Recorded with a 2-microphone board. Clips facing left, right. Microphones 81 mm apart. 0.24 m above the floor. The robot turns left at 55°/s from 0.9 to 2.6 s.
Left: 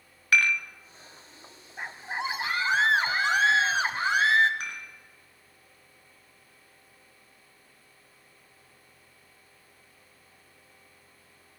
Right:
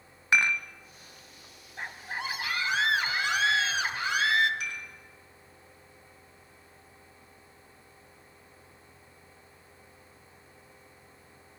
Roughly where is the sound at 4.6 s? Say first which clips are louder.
Even; left.